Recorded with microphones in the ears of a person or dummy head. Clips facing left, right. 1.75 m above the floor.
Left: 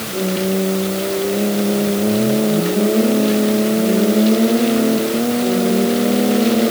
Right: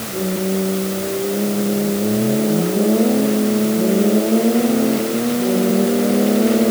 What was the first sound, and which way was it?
Only background noise.